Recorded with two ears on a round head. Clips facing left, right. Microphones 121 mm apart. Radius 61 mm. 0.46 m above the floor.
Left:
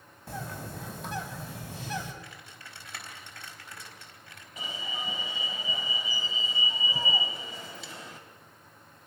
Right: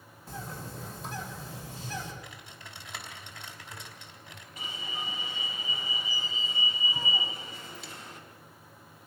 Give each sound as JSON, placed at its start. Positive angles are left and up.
{"t": 0.3, "sound": "a bird", "side_deg": 55, "distance_m": 3.5}
{"t": 2.2, "sound": "typing on a keyboard", "side_deg": -15, "distance_m": 3.0}
{"t": 4.6, "sound": "an alarm", "side_deg": 70, "distance_m": 3.0}